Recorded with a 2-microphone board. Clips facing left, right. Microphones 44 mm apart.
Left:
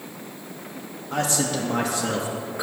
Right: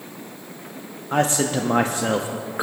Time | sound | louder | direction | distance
1.1 | a man speaking | right 4 dB | 35° right (ahead or behind) | 0.6 m